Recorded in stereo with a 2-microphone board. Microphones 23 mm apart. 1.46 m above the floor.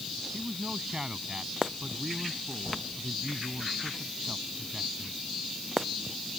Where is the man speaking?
30° right (ahead or behind).